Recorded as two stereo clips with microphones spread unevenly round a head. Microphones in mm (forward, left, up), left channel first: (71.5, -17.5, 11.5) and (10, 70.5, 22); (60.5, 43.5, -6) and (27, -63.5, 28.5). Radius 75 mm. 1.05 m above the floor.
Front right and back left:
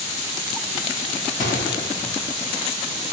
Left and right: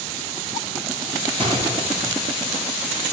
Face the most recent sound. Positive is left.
turn(degrees=-70)